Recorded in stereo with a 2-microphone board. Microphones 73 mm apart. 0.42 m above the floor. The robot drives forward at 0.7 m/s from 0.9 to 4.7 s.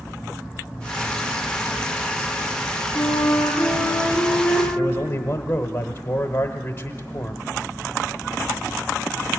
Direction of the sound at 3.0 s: 15° left (ahead or behind).